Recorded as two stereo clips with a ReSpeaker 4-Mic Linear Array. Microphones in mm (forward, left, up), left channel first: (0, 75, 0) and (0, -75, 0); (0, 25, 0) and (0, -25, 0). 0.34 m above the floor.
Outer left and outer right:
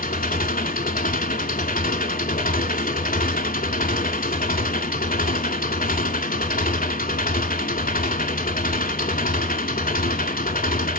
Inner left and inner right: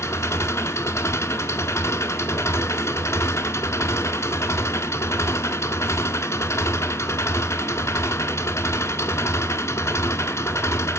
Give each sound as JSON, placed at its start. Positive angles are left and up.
{"t": 0.0, "sound": "an engine running", "side_deg": 85, "distance_m": 0.8}